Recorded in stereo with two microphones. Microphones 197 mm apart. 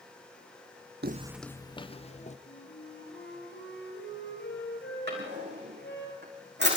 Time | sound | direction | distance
1.0 | footsteps | 55° right (ahead or behind) | 0.5 m
2.5 | a flute | 70° left (ahead or behind) | 5 m
5.1 | a drawer | 60° right (ahead or behind) | 7 m